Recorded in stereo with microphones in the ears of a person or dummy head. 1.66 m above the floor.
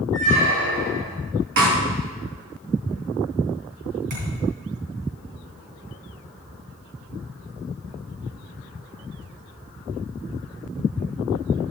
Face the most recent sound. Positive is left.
turn(degrees=-60)  # may be behind; listen again after turning